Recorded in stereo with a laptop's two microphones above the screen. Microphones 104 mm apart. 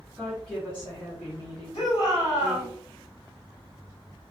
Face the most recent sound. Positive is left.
turn(degrees=50)  # may be behind; listen again after turning